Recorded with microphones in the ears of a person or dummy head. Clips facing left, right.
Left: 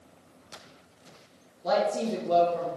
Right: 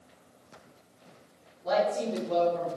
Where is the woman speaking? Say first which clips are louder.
Left 1 dB; 70° left (ahead or behind), 1.1 m.